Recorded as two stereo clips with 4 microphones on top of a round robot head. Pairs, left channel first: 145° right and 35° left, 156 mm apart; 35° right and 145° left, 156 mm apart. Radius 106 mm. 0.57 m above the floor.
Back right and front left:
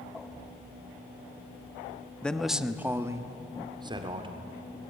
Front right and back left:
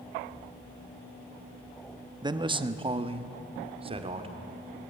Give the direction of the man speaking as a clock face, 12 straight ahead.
7 o'clock.